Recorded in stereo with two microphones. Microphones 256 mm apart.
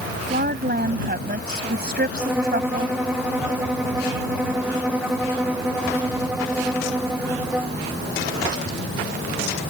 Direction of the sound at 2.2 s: 5° right (ahead or behind).